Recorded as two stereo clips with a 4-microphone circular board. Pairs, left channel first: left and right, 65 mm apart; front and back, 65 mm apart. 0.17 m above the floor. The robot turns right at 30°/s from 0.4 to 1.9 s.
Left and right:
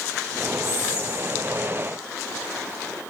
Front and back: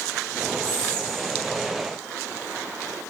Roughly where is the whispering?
Behind left.